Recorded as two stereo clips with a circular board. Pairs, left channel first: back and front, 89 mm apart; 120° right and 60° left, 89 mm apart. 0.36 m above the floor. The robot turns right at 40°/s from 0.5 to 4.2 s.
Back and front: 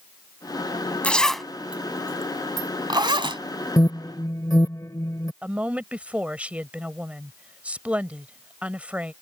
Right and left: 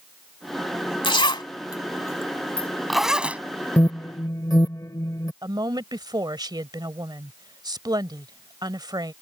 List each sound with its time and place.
1.0 s a zipper: 105° right; by 3.4 s 10° right
3.8 s an alarm: 170° right; by 5.3 s 150° right
5.4 s a woman speaking: 70° left